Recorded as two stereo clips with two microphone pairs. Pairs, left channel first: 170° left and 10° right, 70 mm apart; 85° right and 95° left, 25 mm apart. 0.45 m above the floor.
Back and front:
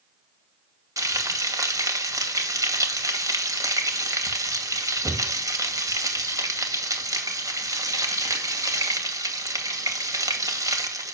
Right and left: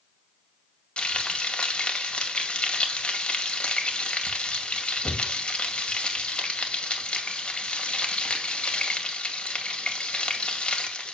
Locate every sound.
1.0 s frying: 40° right, 2 m